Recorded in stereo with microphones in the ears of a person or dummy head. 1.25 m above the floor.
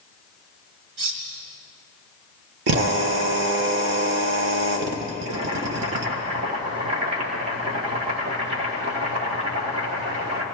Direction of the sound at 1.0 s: 70° right (ahead or behind).